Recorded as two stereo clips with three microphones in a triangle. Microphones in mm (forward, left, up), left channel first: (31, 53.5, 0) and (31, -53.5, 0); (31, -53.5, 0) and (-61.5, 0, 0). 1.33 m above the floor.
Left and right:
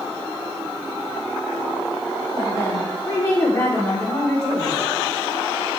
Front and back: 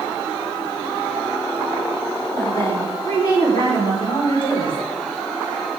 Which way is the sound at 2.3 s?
25° left.